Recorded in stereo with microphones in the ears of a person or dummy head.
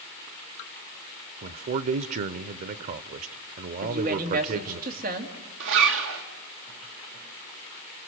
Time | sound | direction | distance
1.4 | a man speaking | 40° right (ahead or behind) | 0.8 m
3.8 | a woman speaking | 50° right (ahead or behind) | 2.5 m
5.6 | a zipper | 75° right (ahead or behind) | 1.8 m